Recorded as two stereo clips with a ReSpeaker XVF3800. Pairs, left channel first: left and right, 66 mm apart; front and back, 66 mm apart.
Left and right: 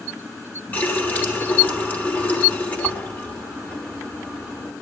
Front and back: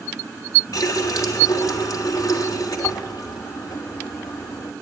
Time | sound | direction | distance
0.7 | a running tap | 25° left | 3 m